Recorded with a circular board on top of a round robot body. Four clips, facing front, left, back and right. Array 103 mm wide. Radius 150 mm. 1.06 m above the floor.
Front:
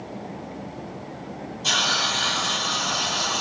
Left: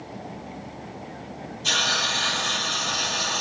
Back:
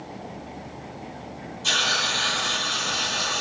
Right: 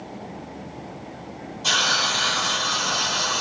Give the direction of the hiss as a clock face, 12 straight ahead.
3 o'clock.